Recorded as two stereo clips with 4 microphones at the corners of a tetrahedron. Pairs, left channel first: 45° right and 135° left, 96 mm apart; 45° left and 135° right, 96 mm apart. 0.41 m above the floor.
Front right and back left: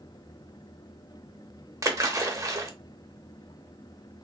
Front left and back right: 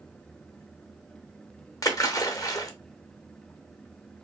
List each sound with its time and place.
1.8 s a splash: 90° left, 0.5 m